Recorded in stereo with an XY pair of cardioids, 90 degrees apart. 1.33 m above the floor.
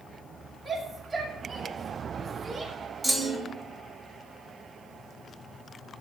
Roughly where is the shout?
Ahead.